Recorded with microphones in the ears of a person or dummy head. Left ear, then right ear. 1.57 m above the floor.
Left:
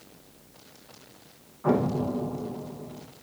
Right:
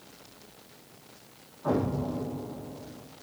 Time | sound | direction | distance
1.6 | an explosion | 65° left (ahead or behind) | 1.2 m